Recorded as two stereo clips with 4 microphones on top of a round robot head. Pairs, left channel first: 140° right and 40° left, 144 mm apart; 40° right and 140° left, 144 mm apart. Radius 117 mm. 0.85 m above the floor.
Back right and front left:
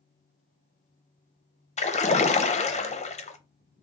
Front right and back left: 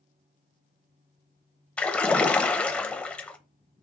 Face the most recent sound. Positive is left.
turn(degrees=-120)